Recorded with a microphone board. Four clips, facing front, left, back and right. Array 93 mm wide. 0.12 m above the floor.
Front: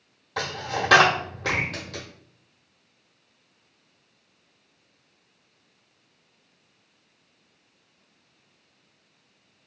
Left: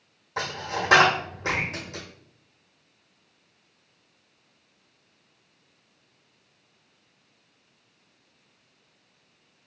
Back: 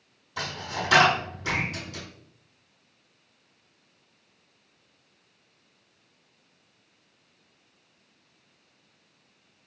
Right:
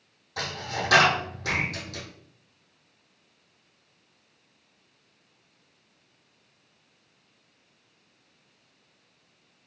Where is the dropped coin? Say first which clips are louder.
Left 2 dB, front 4 dB; 30° left, 1.0 m.